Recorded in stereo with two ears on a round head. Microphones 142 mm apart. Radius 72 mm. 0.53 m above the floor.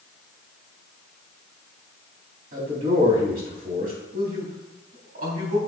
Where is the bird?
No bird in this recording.